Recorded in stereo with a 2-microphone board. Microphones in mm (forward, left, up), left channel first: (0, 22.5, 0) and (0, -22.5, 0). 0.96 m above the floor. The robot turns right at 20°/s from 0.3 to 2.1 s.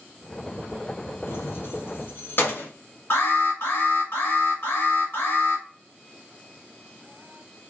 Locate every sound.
1.3 s keys jangling: 65° left (ahead or behind), 0.6 m; by 2.7 s 55° left (ahead or behind), 0.6 m
3.1 s an alarm: 65° left (ahead or behind), 1.4 m